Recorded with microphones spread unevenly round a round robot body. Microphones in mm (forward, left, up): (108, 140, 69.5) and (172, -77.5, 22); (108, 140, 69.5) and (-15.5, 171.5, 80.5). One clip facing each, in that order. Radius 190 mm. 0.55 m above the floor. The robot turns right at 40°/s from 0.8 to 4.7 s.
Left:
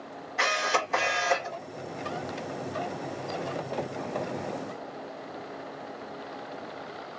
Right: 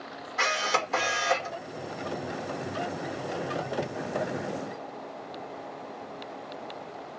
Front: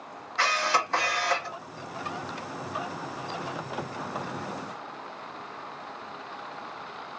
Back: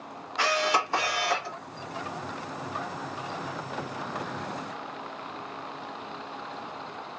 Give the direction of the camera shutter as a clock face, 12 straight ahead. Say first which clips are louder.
Left 1 dB, back 1 dB; 4 o'clock.